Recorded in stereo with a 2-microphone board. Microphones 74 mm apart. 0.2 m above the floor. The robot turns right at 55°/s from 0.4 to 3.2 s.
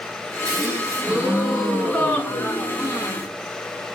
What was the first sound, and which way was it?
A gasp, 60° right.